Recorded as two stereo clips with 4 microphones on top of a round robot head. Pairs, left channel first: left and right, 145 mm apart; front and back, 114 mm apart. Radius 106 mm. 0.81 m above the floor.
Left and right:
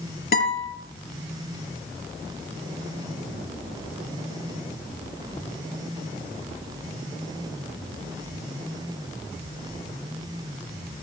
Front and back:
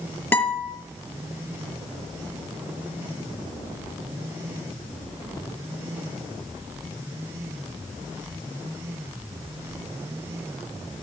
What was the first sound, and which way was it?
A guitar, 75° left.